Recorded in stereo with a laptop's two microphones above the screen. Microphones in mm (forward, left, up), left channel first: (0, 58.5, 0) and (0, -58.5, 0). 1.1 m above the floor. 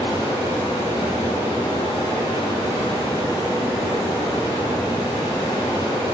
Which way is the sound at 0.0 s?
40° left (ahead or behind).